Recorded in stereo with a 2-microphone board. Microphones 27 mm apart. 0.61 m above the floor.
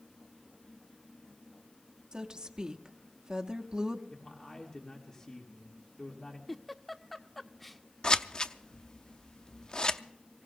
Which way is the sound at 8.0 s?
25° left (ahead or behind).